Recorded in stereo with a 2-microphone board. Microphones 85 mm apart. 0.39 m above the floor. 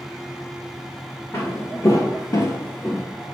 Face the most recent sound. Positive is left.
turn(degrees=15)  # may be behind; listen again after turning